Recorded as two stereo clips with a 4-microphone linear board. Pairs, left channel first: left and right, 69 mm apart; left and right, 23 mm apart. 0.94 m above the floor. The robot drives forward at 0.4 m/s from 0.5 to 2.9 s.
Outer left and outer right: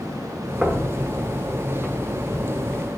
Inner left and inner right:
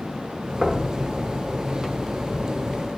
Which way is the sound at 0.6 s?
10° right (ahead or behind).